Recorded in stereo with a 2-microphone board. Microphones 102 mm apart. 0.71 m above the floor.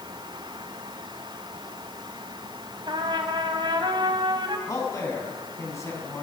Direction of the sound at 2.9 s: 50° right (ahead or behind).